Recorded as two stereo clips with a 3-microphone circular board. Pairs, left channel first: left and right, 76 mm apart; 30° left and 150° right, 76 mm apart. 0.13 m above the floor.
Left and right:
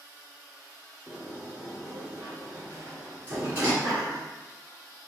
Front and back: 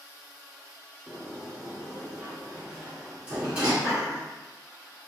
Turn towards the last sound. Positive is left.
turn(degrees=-75)